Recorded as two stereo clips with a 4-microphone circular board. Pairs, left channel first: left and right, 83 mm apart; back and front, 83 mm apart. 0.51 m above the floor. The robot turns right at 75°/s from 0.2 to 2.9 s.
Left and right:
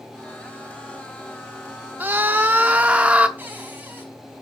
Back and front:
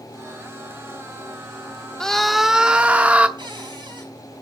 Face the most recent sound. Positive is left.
turn(degrees=-20)